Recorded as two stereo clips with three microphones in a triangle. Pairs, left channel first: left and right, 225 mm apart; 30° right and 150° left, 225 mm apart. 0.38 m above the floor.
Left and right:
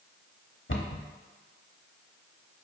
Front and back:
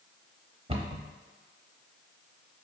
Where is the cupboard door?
95° left, 0.6 m.